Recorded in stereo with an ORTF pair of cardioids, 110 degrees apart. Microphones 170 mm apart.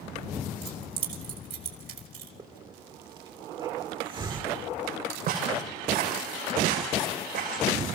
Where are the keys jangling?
60° right, 4 m.